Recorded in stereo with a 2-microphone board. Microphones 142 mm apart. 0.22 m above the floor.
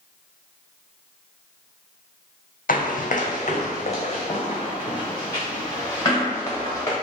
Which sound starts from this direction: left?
Running footsteps, at 2.7 s.